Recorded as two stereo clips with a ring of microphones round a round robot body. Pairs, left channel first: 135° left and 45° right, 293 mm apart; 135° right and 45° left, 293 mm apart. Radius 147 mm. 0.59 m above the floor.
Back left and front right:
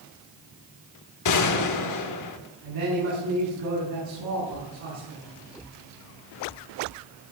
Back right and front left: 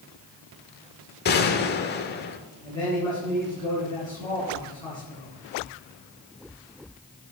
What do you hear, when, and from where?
1.2 s a gunshot: 165° left, 1.0 m
2.6 s a man speaking: 60° right, 6 m